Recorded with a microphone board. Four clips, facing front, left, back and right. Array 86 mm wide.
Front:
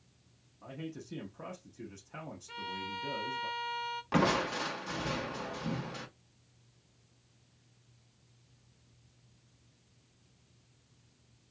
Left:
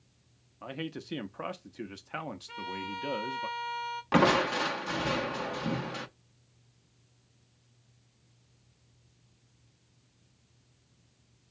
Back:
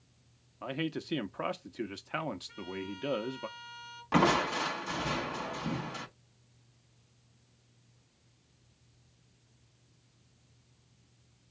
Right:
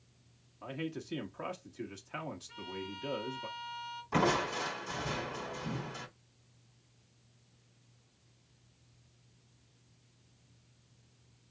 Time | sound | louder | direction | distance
0.6 | a man speaking | left 1 dB, back 8 dB | 155° left | 0.8 m
2.5 | a violin | left 5 dB, even | 55° left | 1.2 m
4.1 | crushing | left 6 dB, back 3 dB | 100° left | 1.0 m